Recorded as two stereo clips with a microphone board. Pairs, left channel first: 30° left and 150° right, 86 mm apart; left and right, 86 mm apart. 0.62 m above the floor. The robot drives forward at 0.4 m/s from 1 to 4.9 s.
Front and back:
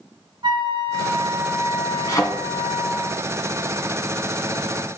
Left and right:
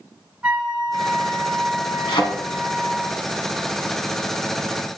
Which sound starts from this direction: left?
A thud, at 2.1 s.